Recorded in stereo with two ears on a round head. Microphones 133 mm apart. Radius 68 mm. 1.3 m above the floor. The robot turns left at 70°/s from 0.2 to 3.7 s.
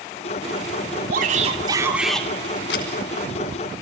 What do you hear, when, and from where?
1.1 s a shout: 110° right, 3 m; by 2.3 s 170° left, 3 m
2.7 s a camera shutter: 85° left, 5 m; by 2.9 s 75° left (ahead or behind), 5 m